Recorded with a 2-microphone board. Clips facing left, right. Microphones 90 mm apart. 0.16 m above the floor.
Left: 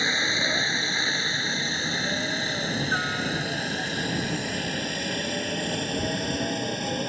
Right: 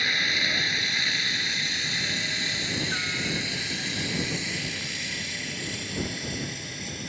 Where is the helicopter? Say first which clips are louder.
Left 2 dB; 30° left (ahead or behind); by 7.1 s 55° left (ahead or behind).